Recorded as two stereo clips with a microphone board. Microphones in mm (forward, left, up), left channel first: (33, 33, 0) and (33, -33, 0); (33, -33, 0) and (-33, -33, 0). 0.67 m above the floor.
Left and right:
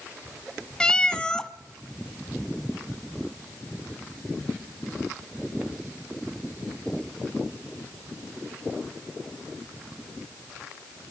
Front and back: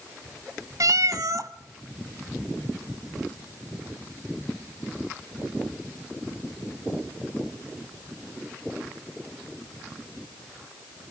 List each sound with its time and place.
0.8 s a cat meowing: 165° left, 0.8 m